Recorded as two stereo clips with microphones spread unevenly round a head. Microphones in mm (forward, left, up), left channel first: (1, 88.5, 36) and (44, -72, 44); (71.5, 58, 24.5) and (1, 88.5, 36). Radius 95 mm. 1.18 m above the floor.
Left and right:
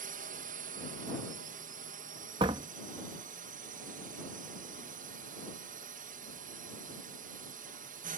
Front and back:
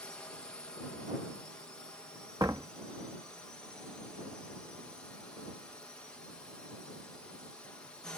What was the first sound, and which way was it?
A drone, 95° right.